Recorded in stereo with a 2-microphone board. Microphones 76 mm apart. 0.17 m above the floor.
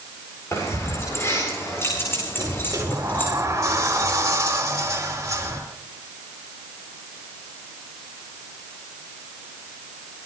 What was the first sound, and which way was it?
Keys jangling, 40° left (ahead or behind).